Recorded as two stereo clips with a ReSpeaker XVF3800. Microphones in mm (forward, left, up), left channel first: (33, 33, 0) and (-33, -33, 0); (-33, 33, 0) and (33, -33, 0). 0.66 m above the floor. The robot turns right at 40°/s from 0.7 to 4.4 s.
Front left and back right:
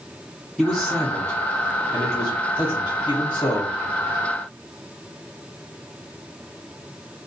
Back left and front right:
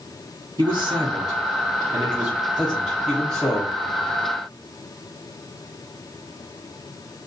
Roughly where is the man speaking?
Ahead right.